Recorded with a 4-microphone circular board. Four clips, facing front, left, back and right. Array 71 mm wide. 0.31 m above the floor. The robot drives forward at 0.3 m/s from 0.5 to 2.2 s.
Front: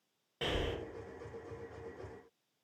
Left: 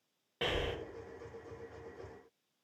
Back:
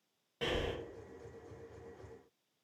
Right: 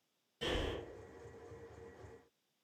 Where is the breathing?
80° left, 0.5 m; by 0.8 s 90° left, 0.5 m.